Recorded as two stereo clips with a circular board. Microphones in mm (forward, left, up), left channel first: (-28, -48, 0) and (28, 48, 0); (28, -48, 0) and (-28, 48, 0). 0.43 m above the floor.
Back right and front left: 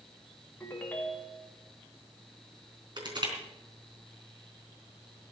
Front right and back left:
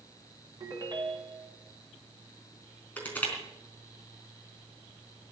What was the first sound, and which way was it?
A ringtone, 165° left.